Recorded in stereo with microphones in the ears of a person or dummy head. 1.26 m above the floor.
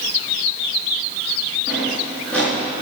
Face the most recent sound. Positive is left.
turn(degrees=10)  # may be behind; listen again after turning